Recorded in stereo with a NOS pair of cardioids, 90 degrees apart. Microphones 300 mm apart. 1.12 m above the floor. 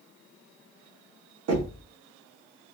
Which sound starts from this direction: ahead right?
Knocking, at 1.5 s.